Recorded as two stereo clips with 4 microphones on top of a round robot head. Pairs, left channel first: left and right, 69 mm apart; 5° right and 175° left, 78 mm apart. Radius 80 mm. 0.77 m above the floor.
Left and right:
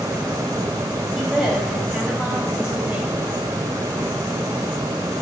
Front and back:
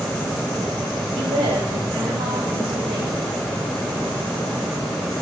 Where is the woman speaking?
Straight behind, 5.5 m; by 3.3 s 165° right, 5 m.